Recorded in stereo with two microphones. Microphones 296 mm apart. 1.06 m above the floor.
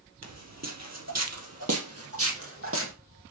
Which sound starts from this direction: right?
Footsteps, at 0.2 s.